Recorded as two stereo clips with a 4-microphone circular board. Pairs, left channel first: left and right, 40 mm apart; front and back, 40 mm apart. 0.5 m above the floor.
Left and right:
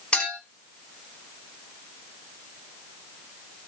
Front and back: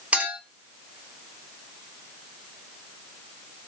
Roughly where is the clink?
Behind left.